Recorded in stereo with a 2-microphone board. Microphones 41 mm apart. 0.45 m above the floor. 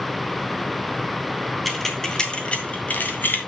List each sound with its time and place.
1.6 s keys jangling: 5° left (ahead or behind), 2 m; by 3.4 s 55° left (ahead or behind), 2.5 m